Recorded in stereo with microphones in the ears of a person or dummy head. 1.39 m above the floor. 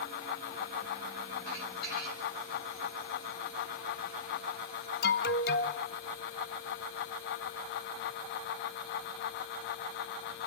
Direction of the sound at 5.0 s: 40° left (ahead or behind).